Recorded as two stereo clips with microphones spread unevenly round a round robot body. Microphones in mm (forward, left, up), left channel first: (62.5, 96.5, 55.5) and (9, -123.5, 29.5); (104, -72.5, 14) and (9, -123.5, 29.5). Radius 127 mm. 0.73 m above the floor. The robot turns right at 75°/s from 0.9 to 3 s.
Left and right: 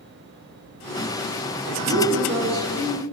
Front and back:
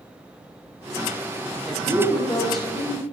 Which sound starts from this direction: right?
A woman speaking, at 1.6 s.